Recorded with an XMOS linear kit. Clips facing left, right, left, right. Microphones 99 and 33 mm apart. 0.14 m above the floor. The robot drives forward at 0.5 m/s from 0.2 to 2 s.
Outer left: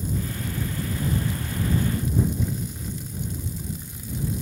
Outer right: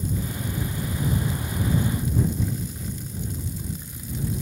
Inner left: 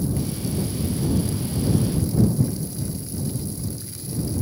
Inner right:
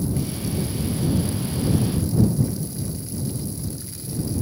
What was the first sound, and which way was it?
Only background noise.